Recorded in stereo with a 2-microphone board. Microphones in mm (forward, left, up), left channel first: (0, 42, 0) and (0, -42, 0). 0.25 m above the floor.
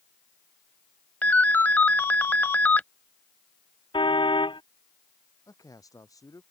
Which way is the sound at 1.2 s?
20° left (ahead or behind).